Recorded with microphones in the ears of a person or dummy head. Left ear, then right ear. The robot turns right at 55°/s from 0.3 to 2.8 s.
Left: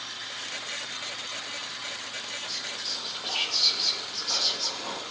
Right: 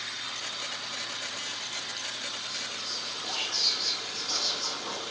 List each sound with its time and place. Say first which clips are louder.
2.5 s whispering: left 2 dB; 25° left (ahead or behind), 0.8 m; by 5.0 s 45° left (ahead or behind), 0.8 m